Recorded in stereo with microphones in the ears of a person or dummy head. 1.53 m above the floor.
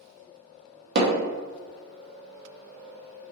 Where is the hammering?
55° right (ahead or behind), 0.8 m.